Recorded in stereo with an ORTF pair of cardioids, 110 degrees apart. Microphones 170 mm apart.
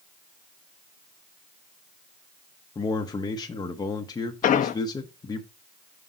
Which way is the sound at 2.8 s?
25° left.